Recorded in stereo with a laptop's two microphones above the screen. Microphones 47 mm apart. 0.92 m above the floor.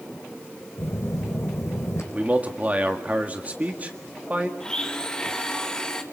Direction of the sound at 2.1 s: 30° right (ahead or behind).